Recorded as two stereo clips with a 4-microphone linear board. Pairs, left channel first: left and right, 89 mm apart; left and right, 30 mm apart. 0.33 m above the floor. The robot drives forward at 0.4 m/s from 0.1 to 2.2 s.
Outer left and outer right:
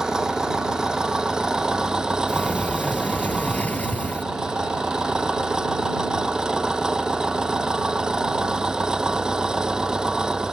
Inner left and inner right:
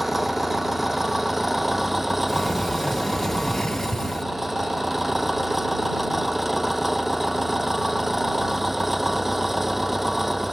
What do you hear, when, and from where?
0.0 s an engine running: 5° right (ahead or behind)
2.3 s a sliding door: 15° left (ahead or behind)